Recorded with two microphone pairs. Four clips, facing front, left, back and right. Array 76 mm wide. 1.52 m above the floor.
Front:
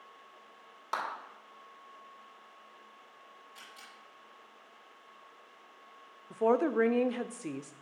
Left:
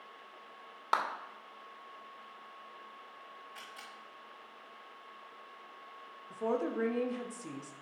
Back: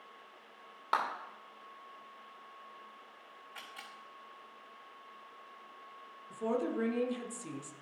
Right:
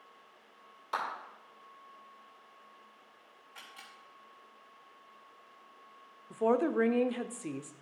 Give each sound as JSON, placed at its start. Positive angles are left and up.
{"t": 0.9, "sound": "a clap", "azimuth_deg": 115, "distance_m": 2.5}
{"t": 3.5, "sound": "a camera shutter", "azimuth_deg": 180, "distance_m": 3.5}
{"t": 6.3, "sound": "a woman speaking", "azimuth_deg": -25, "distance_m": 0.6}